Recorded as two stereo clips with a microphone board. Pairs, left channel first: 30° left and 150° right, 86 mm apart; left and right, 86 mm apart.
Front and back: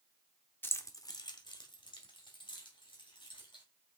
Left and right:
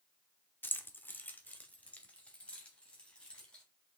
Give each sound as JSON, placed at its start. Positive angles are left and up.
{"t": 0.6, "sound": "keys jangling", "azimuth_deg": 60, "distance_m": 0.8}